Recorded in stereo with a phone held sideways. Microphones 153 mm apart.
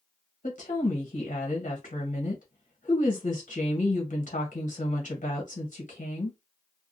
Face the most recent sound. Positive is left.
turn(degrees=60)  # may be behind; listen again after turning